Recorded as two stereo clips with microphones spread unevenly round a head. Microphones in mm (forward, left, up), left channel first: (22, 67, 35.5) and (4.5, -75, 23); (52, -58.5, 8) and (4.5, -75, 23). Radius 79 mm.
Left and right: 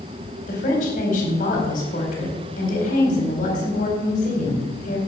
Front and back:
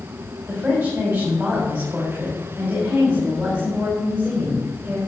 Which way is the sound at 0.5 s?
125° left.